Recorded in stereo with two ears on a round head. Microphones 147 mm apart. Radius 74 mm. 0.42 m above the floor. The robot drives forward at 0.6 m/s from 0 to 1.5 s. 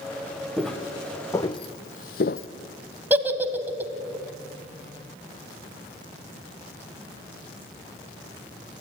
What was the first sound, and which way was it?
Footsteps, centre (ahead or behind).